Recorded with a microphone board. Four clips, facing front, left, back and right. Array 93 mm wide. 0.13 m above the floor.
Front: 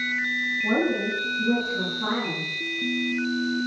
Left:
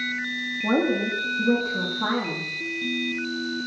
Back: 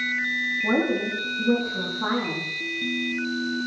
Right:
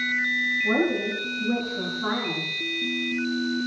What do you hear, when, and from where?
0.6 s a woman speaking: 110° left, 8.5 m